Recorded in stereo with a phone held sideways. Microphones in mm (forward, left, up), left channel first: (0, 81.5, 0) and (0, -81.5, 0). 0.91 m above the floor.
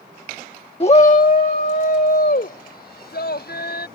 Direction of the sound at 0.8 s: 35° left (ahead or behind).